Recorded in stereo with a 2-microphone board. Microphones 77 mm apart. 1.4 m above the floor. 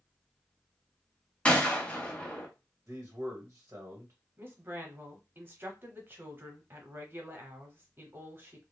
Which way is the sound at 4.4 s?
30° right (ahead or behind).